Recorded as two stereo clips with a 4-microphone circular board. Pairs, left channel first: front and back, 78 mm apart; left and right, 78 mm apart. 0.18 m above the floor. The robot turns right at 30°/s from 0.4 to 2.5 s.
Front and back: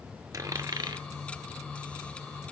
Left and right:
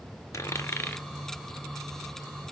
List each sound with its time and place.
0.3 s a dropped coin: 135° left, 0.5 m; by 1.0 s 155° left, 0.5 m